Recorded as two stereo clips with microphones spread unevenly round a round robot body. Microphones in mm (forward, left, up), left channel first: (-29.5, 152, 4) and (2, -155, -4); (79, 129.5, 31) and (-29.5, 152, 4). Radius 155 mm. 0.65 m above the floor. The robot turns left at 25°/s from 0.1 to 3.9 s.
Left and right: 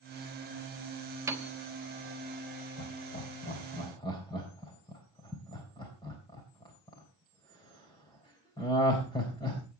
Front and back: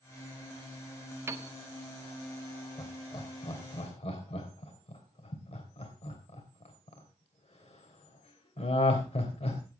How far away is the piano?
About 1.1 m.